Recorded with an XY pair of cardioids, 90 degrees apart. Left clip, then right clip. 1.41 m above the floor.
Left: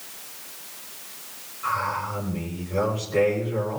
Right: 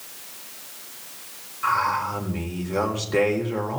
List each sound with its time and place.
1.6 s a man speaking: 70° right, 4.5 m